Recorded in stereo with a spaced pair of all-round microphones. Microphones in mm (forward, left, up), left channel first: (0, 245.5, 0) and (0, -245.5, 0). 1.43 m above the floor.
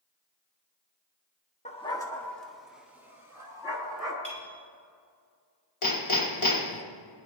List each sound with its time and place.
1.6 s a dog barking: 15° left (ahead or behind), 1.0 m; by 4.1 s 10° right (ahead or behind), 3 m
4.2 s a clink: 40° left (ahead or behind), 2.5 m
5.8 s hammering: 85° left, 1.5 m